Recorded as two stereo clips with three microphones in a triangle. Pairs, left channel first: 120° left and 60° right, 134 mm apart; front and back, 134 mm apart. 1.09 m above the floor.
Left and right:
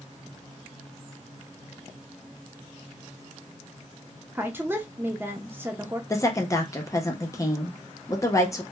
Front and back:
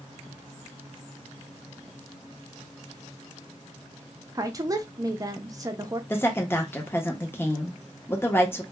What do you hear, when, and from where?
4.3 s a woman speaking: 125° right, 0.5 m
6.1 s a woman speaking: 65° left, 0.7 m